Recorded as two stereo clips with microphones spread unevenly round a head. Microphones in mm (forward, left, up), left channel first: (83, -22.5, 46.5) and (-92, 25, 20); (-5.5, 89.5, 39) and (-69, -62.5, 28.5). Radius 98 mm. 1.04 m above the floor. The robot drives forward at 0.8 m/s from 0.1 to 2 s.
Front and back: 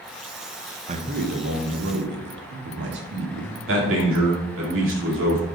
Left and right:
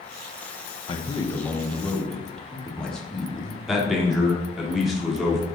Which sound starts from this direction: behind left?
A man speaking, at 0.9 s.